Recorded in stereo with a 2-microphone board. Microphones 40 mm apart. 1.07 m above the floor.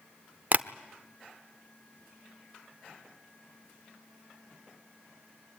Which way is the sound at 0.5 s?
40° right (ahead or behind).